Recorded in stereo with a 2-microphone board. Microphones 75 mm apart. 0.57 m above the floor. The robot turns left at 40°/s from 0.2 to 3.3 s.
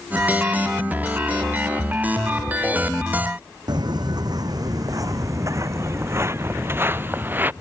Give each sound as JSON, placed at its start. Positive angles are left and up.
{"t": 3.7, "sound": "footsteps", "side_deg": -70}